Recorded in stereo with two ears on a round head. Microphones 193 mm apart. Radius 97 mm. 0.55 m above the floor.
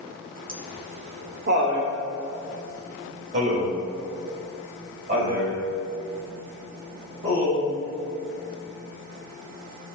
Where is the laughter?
45° right (ahead or behind), 1.9 m; by 10.0 s 30° right (ahead or behind), 5.5 m.